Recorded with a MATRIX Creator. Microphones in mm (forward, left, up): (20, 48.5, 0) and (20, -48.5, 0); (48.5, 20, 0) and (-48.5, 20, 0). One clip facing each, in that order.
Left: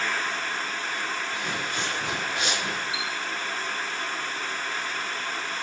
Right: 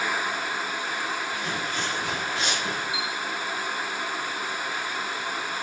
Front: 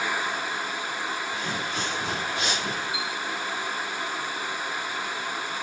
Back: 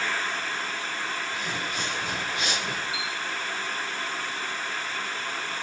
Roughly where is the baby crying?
No baby crying in this recording.